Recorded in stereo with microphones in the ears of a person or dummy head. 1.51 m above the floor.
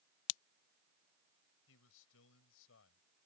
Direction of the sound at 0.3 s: 75° left (ahead or behind).